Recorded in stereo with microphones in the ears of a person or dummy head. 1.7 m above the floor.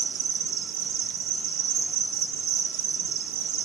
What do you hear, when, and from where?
0.0 s an insect: 60° right (ahead or behind), 1.0 m